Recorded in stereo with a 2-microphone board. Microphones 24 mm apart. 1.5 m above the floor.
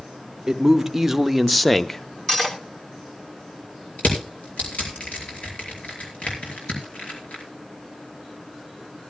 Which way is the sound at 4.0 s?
75° left (ahead or behind).